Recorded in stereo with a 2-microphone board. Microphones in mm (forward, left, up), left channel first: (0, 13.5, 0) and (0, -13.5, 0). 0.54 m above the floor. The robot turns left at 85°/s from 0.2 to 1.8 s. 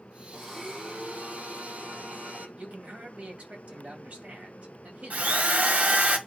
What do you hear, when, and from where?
0.3 s a blender: 10° left, 6.5 m; by 2.5 s 115° right, 6.5 m
2.6 s a man speaking: 55° right (ahead or behind), 2.5 m
5.1 s a drill: 55° right (ahead or behind), 1.3 m